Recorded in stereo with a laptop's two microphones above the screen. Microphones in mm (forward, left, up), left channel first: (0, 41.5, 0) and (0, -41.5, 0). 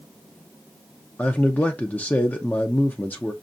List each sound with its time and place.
1.2 s a man speaking: 20° left (ahead or behind), 0.5 m